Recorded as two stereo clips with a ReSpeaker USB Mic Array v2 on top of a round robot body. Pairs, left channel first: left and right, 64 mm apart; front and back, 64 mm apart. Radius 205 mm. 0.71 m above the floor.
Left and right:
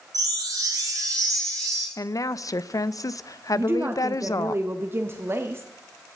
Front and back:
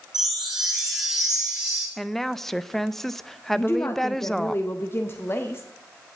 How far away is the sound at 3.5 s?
About 1.1 m.